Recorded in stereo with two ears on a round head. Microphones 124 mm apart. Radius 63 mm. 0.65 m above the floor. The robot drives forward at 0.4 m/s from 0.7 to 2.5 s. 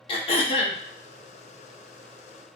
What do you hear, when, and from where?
0.1 s throat clearing: 40° left (ahead or behind), 0.5 m